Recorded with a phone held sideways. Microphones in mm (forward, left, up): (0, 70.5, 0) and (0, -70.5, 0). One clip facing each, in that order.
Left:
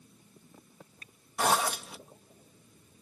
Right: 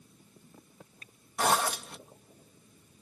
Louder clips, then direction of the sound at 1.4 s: Even; 5° left (ahead or behind).